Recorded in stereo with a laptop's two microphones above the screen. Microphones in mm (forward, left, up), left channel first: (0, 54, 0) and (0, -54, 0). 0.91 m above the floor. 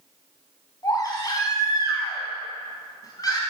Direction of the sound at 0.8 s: 35° left (ahead or behind).